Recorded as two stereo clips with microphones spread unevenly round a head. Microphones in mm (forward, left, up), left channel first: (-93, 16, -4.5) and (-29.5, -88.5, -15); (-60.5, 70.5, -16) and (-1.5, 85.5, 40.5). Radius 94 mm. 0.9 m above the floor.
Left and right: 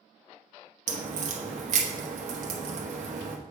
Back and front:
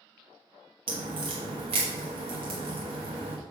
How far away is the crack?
About 0.9 m.